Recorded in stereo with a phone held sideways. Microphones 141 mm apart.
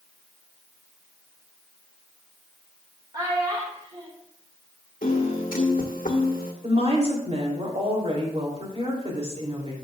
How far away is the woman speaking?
About 3 m.